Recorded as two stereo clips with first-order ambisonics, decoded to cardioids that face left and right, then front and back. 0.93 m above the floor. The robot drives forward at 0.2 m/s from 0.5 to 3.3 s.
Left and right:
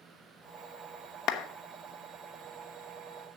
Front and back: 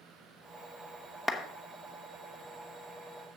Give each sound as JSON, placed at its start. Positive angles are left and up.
{"t": 1.3, "sound": "a clap", "azimuth_deg": 90, "distance_m": 0.8}